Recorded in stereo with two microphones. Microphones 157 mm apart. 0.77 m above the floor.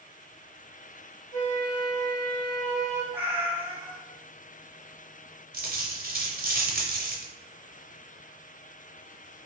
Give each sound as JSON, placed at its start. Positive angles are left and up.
{"t": 1.3, "sound": "a flute", "side_deg": 50, "distance_m": 0.9}
{"t": 3.1, "sound": "a cat meowing", "side_deg": -10, "distance_m": 0.5}
{"t": 5.5, "sound": "a dropped coin", "side_deg": -70, "distance_m": 0.7}